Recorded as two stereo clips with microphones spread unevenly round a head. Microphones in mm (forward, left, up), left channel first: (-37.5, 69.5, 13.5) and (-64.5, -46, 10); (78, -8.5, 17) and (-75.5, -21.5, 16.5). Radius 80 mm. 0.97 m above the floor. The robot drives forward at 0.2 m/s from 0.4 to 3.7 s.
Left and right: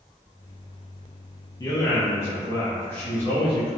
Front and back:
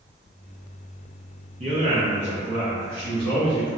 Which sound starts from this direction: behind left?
A man speaking, at 1.6 s.